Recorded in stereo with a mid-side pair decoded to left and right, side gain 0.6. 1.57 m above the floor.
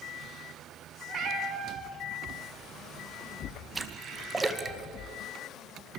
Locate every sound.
1.1 s a cat meowing: 55° right, 3.5 m; by 4.8 s straight ahead, 4 m
3.8 s a splash: 20° right, 1.9 m